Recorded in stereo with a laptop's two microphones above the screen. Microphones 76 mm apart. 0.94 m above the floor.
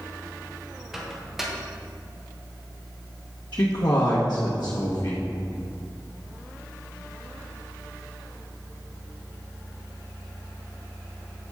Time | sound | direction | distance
0.9 | a microwave | 5° right (ahead or behind) | 0.7 m
3.5 | a man speaking | 70° left (ahead or behind) | 1.0 m